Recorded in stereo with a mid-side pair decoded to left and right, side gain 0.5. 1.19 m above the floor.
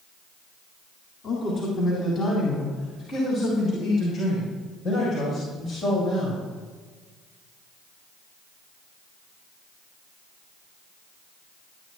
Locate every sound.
1.2 s a man speaking: 40° left, 4 m; by 6.4 s 55° left, 8 m